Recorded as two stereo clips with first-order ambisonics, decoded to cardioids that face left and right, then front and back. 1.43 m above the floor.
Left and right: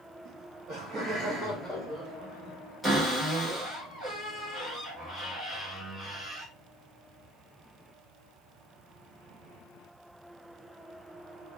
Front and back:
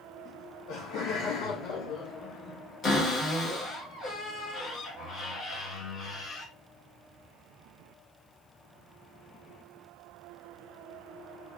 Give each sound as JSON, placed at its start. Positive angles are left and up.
{"t": 0.2, "sound": "laughter", "azimuth_deg": -45, "distance_m": 0.8}
{"t": 2.8, "sound": "a cupboard door", "azimuth_deg": -15, "distance_m": 1.2}